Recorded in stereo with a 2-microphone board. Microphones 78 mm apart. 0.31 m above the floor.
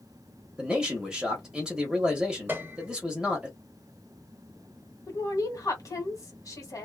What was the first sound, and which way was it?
A man speaking, 10° right (ahead or behind).